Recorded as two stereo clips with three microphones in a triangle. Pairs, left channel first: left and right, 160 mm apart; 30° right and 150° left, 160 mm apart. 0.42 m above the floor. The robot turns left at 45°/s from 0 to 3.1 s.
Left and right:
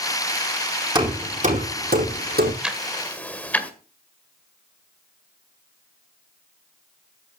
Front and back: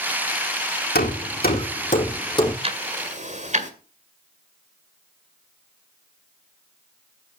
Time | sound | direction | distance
0.9 | hammering | 30° right | 4 m
2.6 | ticking | 170° right | 1.6 m